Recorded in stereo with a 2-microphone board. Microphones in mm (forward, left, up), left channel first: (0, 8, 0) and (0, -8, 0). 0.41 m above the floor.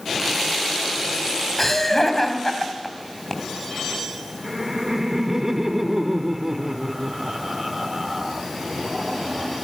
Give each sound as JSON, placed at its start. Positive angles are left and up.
{"t": 1.6, "sound": "laughter", "side_deg": 15, "distance_m": 3.0}
{"t": 4.4, "sound": "laughter", "side_deg": -20, "distance_m": 1.2}